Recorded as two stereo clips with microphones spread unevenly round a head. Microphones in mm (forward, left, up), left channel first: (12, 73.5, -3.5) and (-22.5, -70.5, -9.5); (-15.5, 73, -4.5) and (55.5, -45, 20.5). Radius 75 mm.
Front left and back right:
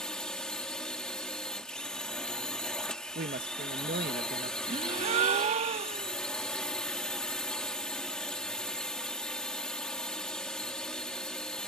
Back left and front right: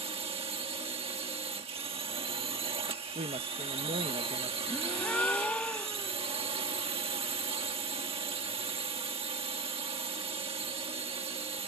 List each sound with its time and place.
0.0 s a drone: 10° right
3.1 s a woman speaking: 115° right
4.7 s a gasp: 155° right